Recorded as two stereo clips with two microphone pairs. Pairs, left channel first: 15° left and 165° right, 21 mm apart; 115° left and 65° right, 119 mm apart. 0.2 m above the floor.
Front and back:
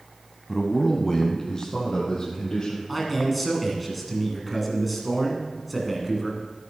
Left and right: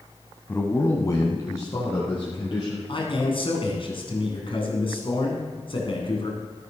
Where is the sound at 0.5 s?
90° left, 1.0 m; by 2.8 s 60° left, 3 m.